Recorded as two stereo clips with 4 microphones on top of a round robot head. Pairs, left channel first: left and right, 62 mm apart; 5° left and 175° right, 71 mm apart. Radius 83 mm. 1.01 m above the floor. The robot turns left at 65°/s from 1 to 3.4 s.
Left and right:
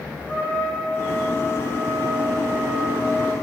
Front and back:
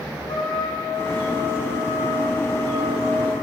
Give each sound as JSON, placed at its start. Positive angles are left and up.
{"t": 0.2, "sound": "a trumpet", "azimuth_deg": 25, "distance_m": 10.0}